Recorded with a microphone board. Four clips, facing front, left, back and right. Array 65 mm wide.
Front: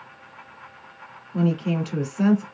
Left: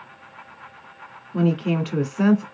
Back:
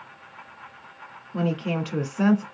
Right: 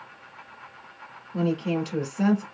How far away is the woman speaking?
About 1.2 m.